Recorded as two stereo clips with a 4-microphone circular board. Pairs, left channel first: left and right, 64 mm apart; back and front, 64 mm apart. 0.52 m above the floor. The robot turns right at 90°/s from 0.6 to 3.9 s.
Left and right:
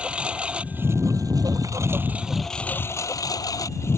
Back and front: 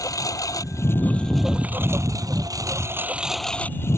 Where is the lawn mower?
160° right; by 4.0 s 135° left.